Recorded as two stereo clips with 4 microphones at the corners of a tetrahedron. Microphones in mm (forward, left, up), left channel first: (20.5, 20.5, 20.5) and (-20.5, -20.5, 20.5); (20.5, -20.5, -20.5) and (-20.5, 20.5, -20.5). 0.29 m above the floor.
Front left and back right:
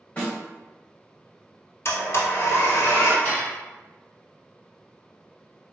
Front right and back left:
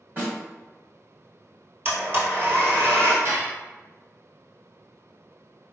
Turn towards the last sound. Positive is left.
turn(degrees=110)